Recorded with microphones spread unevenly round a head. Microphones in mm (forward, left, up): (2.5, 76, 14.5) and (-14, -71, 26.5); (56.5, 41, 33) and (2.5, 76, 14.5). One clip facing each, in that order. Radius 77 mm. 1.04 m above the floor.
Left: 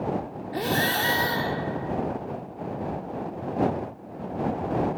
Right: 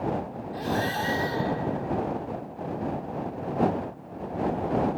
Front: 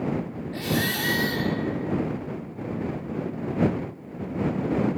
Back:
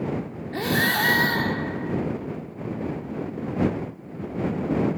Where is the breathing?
100° left.